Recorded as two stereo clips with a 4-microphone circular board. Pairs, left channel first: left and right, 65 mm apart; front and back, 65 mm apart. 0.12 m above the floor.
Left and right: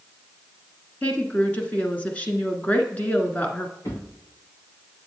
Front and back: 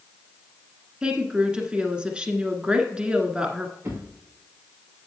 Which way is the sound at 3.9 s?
125° left.